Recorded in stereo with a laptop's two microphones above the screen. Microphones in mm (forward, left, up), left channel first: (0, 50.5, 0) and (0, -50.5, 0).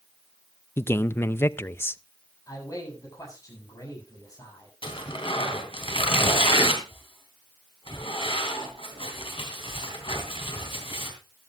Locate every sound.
0.8 s a man speaking: 25° left (ahead or behind), 0.6 m
2.5 s a man speaking: 35° left (ahead or behind), 7.5 m
4.8 s tearing paper: 65° left (ahead or behind), 3 m